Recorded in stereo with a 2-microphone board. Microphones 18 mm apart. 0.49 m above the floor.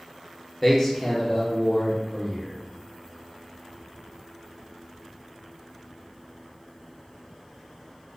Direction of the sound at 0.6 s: 10° left (ahead or behind).